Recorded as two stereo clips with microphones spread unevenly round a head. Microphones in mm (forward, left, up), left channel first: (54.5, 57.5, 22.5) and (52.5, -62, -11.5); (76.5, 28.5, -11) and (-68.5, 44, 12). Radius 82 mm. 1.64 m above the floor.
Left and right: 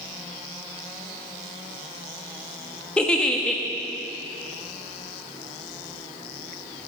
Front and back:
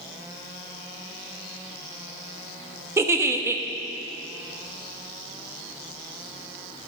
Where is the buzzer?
I don't hear a buzzer.